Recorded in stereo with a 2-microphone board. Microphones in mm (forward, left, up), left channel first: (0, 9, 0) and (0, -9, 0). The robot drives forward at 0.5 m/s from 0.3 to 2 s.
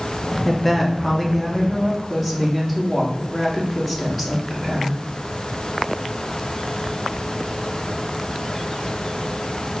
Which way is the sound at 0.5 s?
5° left (ahead or behind).